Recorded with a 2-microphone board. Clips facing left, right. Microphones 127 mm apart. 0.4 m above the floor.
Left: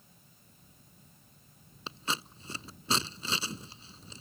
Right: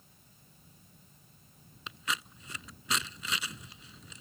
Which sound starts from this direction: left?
Scissors, at 1.9 s.